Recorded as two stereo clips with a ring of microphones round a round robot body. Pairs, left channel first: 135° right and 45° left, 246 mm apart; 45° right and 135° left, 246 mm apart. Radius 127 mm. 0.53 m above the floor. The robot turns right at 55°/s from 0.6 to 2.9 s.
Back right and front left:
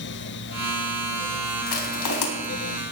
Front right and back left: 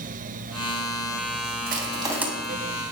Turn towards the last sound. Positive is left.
turn(degrees=-105)